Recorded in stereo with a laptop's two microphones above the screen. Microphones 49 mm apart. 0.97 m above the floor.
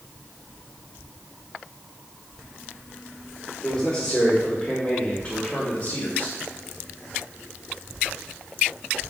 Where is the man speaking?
5° right (ahead or behind), 2.5 m; by 6.4 s 30° left (ahead or behind), 1.6 m.